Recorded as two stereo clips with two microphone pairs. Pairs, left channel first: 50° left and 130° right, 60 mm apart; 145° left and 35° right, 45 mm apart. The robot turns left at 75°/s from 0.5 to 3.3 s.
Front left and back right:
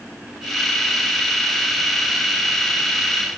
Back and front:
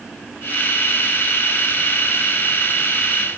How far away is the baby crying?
No baby crying in this recording.